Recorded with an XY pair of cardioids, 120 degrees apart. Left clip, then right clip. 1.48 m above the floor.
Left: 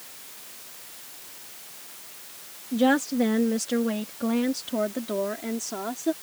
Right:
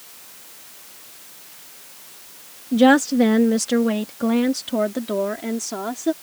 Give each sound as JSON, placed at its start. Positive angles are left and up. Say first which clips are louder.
{"t": 2.7, "sound": "a woman speaking", "louder": "right 8 dB", "azimuth_deg": -45}